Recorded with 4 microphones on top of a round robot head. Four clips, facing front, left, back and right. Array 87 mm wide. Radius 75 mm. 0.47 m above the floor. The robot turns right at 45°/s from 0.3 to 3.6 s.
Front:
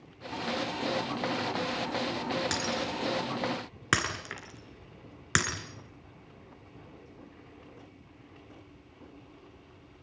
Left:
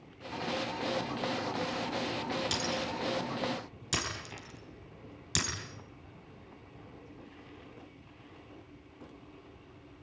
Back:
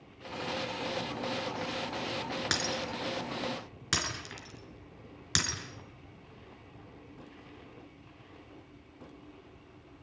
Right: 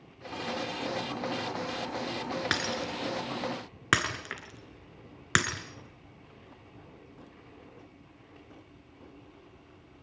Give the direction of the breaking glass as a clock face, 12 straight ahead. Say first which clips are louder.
Right 2 dB, front 2 dB; 4 o'clock.